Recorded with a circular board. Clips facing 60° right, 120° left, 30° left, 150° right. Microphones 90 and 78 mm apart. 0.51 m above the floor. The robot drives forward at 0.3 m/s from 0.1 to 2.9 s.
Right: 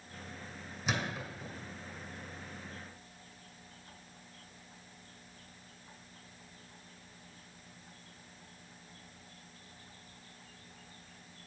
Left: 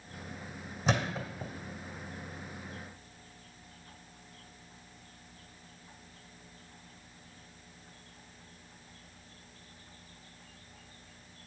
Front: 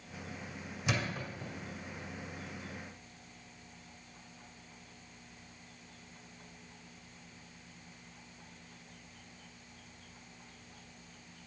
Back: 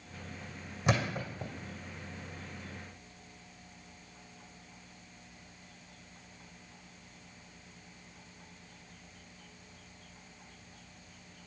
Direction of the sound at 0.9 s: 175° left.